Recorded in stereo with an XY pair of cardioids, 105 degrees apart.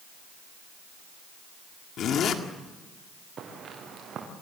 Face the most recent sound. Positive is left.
turn(degrees=-50)